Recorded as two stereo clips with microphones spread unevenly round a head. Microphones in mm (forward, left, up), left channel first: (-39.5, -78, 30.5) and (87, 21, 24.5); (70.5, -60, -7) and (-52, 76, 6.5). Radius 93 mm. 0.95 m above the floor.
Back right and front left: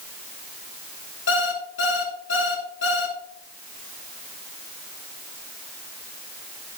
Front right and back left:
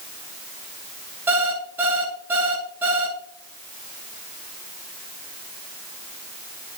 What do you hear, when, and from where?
1.3 s an alarm clock: 145° right, 6.5 m